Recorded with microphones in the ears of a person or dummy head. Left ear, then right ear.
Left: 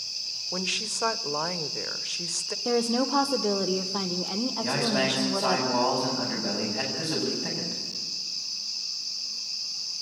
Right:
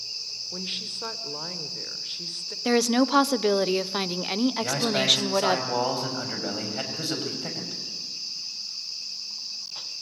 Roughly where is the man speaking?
Right.